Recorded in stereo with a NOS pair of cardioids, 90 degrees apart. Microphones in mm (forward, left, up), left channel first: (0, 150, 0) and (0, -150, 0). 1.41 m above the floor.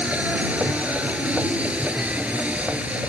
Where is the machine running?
5° right.